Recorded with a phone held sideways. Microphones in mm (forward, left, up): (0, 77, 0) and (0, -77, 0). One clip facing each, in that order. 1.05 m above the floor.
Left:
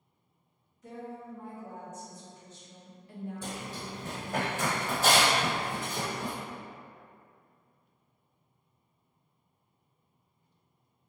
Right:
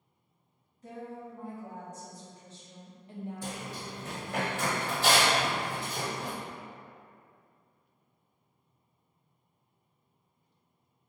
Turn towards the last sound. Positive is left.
turn(degrees=50)  # may be behind; listen again after turning